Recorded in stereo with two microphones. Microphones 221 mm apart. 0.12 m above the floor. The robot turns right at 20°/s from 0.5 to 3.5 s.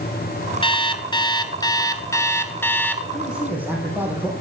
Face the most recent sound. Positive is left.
turn(degrees=-10)  # may be behind; listen again after turning